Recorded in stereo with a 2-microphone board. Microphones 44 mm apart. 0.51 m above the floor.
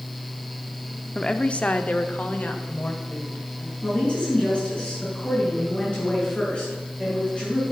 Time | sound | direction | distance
1.1 | a woman speaking | 15° left (ahead or behind) | 0.6 m
3.8 | a woman speaking | 25° left (ahead or behind) | 6 m